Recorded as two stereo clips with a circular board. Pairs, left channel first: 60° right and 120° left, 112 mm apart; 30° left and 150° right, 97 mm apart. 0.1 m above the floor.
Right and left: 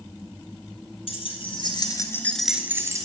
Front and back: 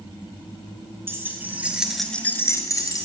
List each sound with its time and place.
1.1 s keys jangling: 85° right, 2 m; by 3.1 s 70° left, 1.5 m